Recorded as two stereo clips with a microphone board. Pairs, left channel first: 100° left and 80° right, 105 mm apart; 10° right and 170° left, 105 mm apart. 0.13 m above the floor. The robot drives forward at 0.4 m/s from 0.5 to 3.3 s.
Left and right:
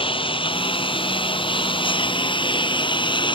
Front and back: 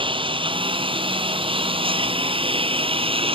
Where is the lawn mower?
135° left; by 3.4 s 140° left.